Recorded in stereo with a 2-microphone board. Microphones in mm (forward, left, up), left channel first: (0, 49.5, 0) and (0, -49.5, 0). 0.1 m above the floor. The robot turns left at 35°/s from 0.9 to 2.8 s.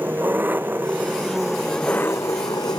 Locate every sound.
0.0 s an engine running: 160° right; by 2.8 s 130° left